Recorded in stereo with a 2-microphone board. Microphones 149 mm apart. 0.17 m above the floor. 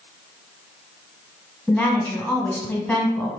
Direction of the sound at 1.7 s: 10° left (ahead or behind).